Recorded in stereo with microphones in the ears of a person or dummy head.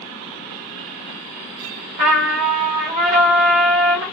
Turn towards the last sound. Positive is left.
turn(degrees=-40)  # may be behind; listen again after turning